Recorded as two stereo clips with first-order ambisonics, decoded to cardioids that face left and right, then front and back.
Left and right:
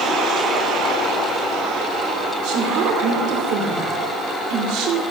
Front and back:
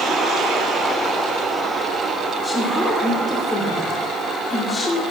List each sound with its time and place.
2.4 s a woman speaking: 80° right, 2.5 m